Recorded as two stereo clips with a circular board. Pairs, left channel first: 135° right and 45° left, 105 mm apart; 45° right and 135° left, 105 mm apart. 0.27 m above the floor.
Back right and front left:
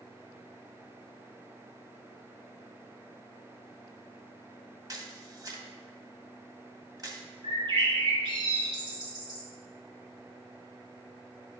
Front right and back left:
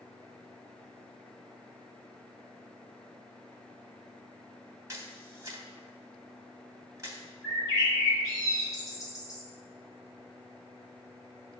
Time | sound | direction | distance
4.9 | a camera shutter | 85° left | 1.0 m
7.4 | a bird | 10° left | 3 m